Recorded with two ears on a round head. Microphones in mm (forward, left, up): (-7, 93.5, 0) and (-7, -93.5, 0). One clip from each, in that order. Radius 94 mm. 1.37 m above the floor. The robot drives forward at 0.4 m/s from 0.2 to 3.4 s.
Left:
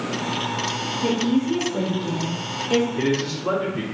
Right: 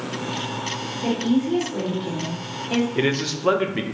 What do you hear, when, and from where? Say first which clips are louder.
1.0 s a woman speaking: even; 10° left (ahead or behind), 1.2 m; by 2.9 s 25° left (ahead or behind), 0.6 m
3.0 s a man speaking: right 1 dB; 75° right (ahead or behind), 0.5 m; by 3.9 s 65° right (ahead or behind), 0.5 m